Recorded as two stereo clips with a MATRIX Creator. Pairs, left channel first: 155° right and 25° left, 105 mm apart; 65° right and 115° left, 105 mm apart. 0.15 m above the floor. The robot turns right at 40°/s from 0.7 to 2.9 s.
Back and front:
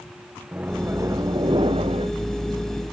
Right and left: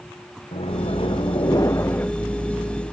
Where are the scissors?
No scissors in this recording.